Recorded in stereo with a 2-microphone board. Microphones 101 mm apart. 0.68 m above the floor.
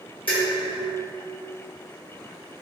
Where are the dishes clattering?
60° left (ahead or behind), 1.1 m.